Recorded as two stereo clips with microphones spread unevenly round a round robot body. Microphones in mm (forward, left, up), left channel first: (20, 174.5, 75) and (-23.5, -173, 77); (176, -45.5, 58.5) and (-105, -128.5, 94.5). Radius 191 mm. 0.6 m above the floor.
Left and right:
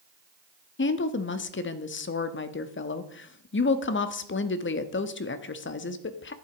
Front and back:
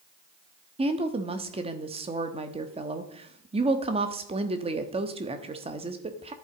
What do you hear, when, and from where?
0.8 s a woman speaking: 125° left, 1.1 m